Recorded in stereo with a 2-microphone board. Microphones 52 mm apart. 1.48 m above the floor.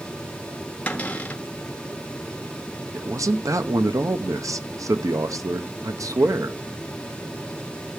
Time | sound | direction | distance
0.9 | a cupboard door | 25° left (ahead or behind) | 1.6 m
2.9 | a man speaking | 80° right | 0.9 m